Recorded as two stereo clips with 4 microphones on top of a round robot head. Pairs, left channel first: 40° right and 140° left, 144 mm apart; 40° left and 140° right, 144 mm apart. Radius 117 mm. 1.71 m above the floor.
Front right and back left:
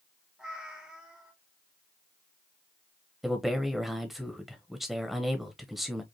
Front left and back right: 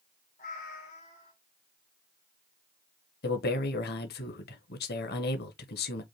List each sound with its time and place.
0.4 s a cat meowing: 55° left, 1.8 m
3.2 s a man speaking: 50° left, 1.1 m